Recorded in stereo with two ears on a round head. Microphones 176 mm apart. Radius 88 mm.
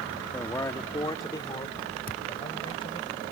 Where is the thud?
50° left (ahead or behind).